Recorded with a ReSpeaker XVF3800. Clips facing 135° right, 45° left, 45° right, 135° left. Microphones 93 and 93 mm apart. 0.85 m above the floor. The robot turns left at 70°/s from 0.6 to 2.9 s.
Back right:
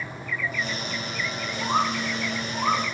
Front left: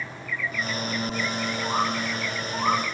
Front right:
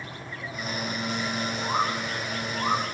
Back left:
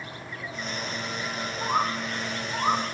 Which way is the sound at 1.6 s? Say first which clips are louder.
Back right 3 dB, back left 2 dB; 175° right.